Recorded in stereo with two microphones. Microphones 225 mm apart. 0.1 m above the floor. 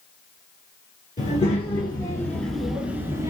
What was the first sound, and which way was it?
A child speaking, 35° left (ahead or behind).